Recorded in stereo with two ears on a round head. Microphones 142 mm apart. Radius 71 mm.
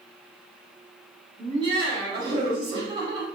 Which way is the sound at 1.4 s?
30° right (ahead or behind).